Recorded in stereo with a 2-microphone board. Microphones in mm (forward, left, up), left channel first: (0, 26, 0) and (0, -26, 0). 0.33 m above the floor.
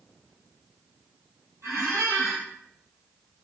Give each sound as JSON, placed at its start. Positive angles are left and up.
{"t": 1.6, "sound": "a squeak", "side_deg": -90, "distance_m": 1.7}